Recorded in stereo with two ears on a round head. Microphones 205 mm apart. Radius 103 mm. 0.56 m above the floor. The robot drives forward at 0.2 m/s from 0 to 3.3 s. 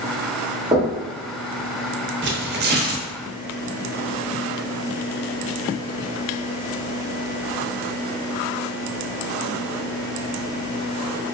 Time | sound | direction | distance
0.7 | knocking | 15° right (ahead or behind) | 1.0 m
2.2 | tearing paper | 55° right (ahead or behind) | 0.6 m